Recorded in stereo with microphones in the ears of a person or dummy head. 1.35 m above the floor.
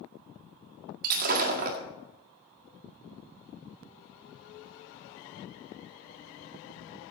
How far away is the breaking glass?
About 1.8 m.